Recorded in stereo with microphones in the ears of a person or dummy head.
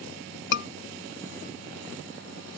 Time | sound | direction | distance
0.5 | a scream | 65° left (ahead or behind) | ?